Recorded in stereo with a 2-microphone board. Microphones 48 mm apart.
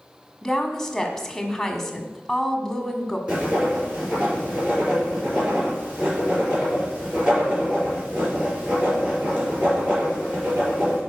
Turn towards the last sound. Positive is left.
turn(degrees=-25)  # may be behind; listen again after turning